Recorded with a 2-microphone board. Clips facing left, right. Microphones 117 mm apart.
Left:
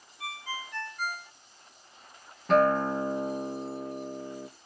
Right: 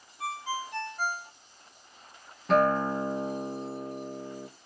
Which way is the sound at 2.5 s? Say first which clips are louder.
Left 1 dB; centre (ahead or behind).